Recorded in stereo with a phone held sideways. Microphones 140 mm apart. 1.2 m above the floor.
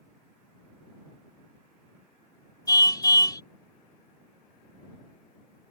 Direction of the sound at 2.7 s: 30° left (ahead or behind).